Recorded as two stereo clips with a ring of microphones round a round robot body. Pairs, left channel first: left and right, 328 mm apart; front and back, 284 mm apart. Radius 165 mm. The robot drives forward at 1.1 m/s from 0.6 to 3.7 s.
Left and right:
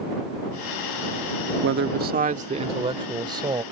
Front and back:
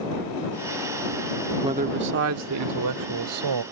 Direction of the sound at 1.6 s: 110° right.